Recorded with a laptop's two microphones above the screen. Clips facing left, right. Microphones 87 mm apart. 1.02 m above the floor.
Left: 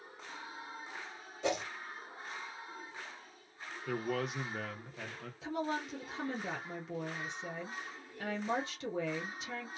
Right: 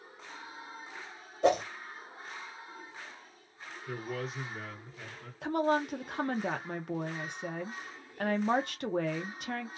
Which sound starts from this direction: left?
A man speaking, at 3.9 s.